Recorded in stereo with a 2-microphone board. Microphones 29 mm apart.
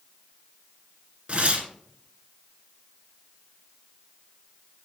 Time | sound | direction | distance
1.3 | tearing paper | 45° right (ahead or behind) | 1.6 m